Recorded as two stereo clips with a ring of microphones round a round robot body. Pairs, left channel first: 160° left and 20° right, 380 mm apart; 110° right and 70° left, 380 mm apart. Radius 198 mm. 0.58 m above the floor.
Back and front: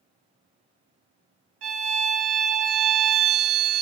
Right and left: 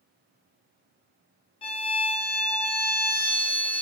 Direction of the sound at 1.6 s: 35° right.